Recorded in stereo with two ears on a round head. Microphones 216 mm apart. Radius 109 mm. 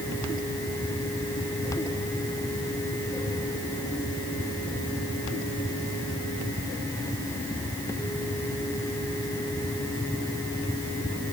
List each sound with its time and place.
Only background noise.